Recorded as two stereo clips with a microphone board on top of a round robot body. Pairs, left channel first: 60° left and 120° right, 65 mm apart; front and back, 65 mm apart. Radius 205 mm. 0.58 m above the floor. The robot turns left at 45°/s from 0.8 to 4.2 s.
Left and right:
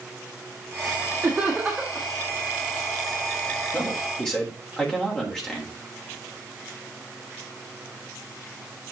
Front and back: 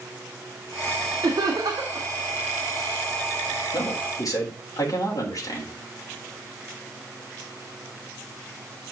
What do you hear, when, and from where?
1.2 s laughter: straight behind, 2 m; by 2.1 s 140° left, 2 m
3.7 s a man speaking: 5° left, 3.5 m; by 5.7 s 20° right, 3.5 m